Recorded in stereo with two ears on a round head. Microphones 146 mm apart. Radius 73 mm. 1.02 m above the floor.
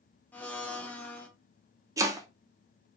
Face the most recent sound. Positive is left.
turn(degrees=-20)  # may be behind; listen again after turning